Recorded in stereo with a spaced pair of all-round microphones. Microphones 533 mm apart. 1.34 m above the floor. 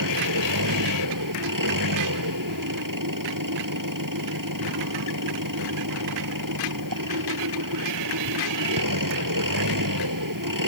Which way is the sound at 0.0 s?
35° right (ahead or behind).